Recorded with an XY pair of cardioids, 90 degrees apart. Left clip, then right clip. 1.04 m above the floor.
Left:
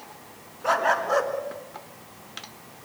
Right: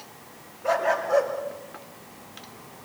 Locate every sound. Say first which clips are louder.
0.6 s a dog barking: left 1 dB; 55° left, 3 m; by 2.9 s 50° left, 4 m